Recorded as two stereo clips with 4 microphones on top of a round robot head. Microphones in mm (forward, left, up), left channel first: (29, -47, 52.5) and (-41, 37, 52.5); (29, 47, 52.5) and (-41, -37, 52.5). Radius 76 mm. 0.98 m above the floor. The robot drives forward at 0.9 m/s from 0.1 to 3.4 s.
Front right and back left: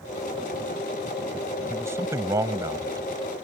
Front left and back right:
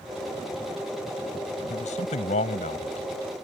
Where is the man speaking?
60° left; by 3.1 s 70° left.